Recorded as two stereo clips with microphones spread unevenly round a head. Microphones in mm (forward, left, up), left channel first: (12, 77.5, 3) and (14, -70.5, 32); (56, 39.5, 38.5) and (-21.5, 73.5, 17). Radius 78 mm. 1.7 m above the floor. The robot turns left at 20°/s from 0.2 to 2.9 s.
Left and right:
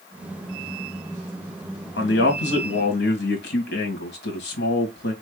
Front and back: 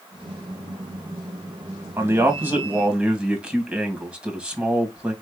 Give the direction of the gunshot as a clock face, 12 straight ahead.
No gunshot in this recording.